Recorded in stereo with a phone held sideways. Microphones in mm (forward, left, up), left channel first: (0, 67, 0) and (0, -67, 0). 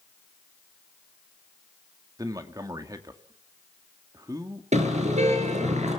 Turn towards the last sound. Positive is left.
turn(degrees=-60)  # may be behind; listen again after turning